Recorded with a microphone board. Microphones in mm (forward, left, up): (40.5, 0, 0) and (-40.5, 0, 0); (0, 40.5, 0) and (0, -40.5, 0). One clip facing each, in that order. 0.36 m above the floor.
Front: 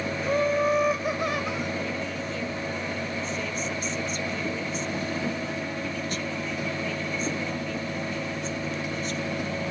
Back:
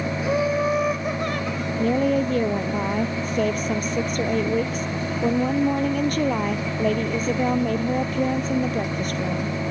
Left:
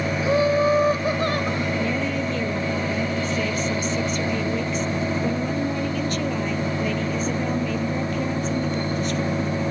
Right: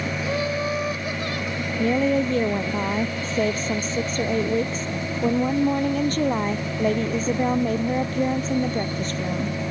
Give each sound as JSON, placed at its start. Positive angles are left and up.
{"t": 0.2, "sound": "laughter", "azimuth_deg": 105}
{"t": 1.8, "sound": "a woman speaking", "azimuth_deg": -140}